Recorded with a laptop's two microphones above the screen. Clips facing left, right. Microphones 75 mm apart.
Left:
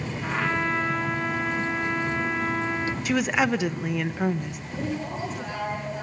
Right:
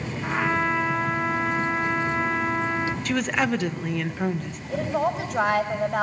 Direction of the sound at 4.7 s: 80° right.